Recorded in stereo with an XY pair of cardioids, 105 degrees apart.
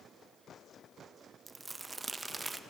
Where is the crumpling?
25° right, 0.5 m.